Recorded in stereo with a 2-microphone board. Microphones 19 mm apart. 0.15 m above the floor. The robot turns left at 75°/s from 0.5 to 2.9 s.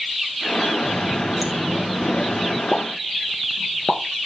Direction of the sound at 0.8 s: 125° right.